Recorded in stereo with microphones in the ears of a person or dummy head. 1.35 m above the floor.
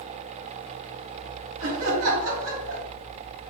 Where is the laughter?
75° right (ahead or behind), 2.5 m.